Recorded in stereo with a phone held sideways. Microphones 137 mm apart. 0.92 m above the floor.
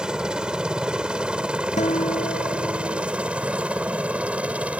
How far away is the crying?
No crying in this recording.